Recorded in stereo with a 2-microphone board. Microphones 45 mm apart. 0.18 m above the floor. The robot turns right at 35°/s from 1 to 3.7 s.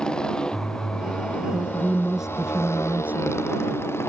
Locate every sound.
0.0 s a motorcycle: 15° left; by 4.1 s 110° left
1.4 s a woman speaking: 160° left; by 3.4 s 125° right